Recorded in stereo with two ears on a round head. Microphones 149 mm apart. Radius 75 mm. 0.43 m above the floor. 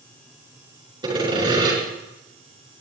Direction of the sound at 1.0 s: 25° right (ahead or behind).